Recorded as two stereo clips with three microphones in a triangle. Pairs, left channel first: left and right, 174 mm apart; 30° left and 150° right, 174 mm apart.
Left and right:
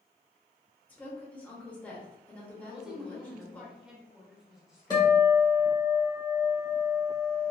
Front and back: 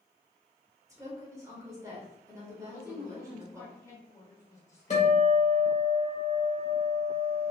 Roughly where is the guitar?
Ahead left.